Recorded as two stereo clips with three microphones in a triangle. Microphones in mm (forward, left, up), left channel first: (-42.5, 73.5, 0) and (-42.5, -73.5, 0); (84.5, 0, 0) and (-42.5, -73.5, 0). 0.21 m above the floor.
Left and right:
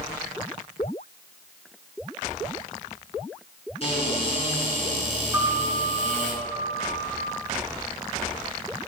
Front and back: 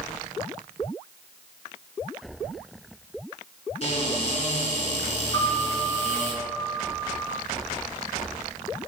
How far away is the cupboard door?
About 3 m.